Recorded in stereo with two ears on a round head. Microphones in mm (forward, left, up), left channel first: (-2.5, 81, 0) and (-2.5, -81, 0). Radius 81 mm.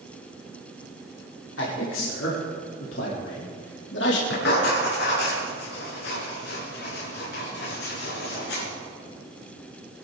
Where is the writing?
65° left (ahead or behind), 6.5 m.